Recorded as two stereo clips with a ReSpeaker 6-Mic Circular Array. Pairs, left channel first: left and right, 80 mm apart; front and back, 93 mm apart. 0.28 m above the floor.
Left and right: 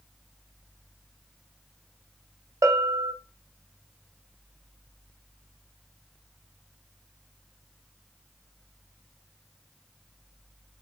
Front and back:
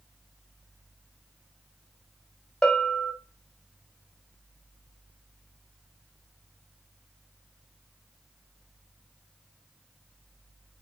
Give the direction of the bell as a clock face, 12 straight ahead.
3 o'clock.